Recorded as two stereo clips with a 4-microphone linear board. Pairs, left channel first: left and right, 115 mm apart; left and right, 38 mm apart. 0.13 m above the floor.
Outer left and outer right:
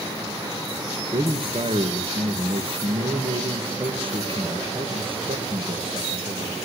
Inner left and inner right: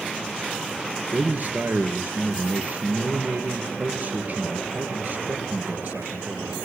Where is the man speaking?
50° right (ahead or behind), 3 m.